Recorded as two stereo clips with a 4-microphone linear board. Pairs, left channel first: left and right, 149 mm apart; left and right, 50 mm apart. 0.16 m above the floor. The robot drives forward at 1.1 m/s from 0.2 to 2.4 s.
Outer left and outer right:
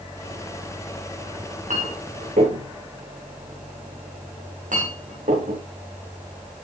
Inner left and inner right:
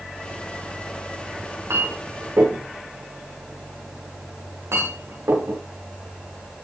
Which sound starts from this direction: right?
A clink, at 1.4 s.